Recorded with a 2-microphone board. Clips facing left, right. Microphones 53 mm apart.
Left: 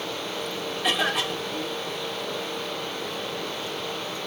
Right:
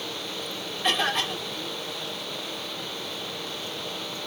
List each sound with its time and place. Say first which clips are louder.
0.8 s a cough: even; 5° left (ahead or behind), 1.6 m